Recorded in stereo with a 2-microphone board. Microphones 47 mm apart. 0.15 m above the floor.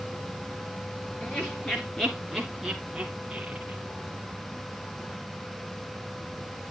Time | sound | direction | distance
1.2 | laughter | 30° left (ahead or behind) | 2 m